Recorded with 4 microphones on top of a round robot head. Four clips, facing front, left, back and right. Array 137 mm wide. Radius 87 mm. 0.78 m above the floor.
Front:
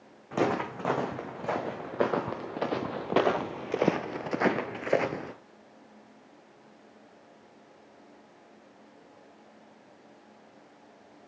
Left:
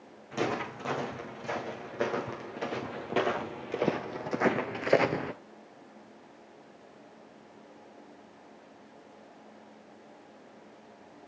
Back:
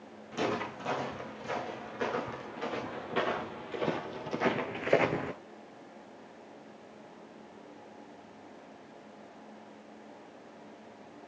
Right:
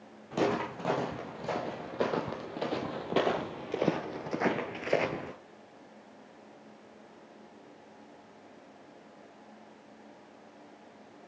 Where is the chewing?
No chewing in this recording.